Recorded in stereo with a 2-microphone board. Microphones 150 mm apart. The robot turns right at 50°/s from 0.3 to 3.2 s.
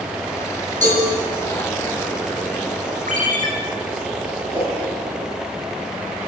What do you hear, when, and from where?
0.8 s a cowbell: 55° right (ahead or behind), 9.5 m; by 1.0 s 65° right (ahead or behind), 9.5 m
3.1 s a ringtone: 60° right (ahead or behind), 4.5 m; by 3.5 s 65° right (ahead or behind), 4.5 m
4.5 s a whoosh: 35° right (ahead or behind), 8 m